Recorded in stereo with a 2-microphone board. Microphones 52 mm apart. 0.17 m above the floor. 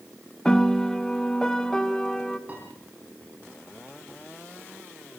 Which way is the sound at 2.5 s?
30° right (ahead or behind).